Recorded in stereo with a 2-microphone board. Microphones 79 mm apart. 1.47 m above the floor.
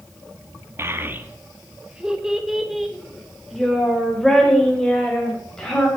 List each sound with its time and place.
0.8 s a child speaking: 30° right (ahead or behind), 1.1 m; by 5.9 s 10° left (ahead or behind), 4 m